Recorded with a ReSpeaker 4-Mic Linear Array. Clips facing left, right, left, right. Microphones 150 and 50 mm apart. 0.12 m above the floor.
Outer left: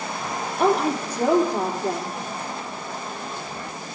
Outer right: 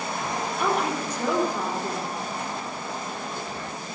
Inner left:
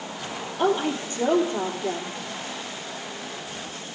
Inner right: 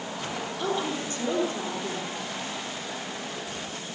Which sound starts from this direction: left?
A woman speaking, at 0.6 s.